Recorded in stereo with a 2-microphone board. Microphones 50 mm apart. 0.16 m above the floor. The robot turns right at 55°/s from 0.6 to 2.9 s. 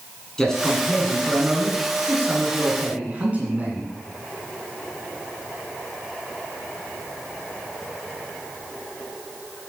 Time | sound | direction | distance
0.4 | a man speaking | 160° left | 1.8 m